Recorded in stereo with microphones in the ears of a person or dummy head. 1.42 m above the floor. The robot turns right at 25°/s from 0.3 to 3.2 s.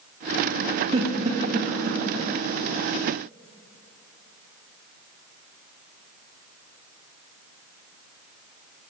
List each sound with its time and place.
0.9 s a giggle: 30° right (ahead or behind), 0.9 m; by 2.0 s 55° right (ahead or behind), 0.9 m